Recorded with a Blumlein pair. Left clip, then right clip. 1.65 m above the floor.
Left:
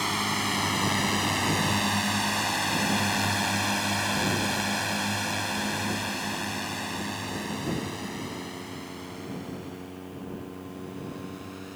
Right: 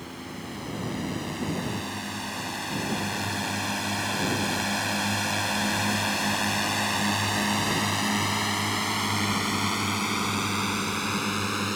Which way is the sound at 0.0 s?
35° left.